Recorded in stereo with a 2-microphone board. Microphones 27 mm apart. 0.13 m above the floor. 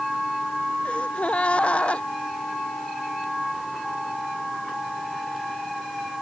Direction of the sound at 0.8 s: 45° left (ahead or behind).